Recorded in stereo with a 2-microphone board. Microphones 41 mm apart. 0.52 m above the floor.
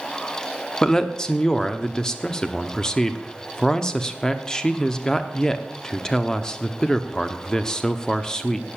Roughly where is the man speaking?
Centre.